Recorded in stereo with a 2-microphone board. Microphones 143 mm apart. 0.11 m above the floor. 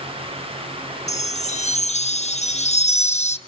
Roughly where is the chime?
Left.